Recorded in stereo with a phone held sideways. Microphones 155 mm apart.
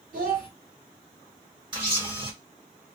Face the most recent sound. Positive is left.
turn(degrees=-30)  # may be behind; listen again after turning